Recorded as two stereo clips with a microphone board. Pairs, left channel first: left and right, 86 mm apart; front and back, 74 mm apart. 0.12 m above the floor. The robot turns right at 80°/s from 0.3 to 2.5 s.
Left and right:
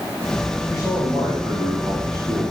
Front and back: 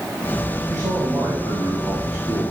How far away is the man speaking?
About 5 m.